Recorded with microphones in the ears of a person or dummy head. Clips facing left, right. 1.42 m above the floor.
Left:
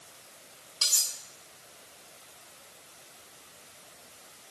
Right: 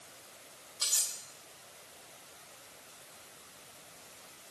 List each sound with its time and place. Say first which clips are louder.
0.8 s cutlery clinking: left 3 dB; 40° left (ahead or behind), 4 m